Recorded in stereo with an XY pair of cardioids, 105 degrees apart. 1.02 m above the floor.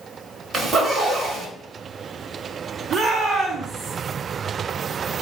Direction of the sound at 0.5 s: 55° right.